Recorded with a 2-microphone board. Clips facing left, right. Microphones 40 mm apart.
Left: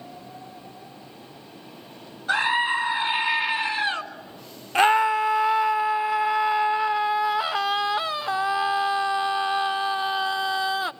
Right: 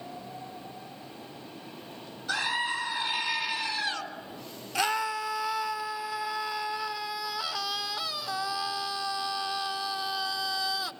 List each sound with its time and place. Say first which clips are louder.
2.3 s a scream: left 8 dB; 35° left (ahead or behind), 2 m
4.8 s a scream: left 10 dB; 40° left (ahead or behind), 0.5 m